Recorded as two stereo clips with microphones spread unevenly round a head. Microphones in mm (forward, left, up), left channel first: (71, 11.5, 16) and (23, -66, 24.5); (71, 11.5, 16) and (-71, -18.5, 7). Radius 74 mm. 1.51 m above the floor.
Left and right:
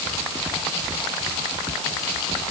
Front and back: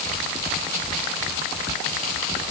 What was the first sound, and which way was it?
Only background noise.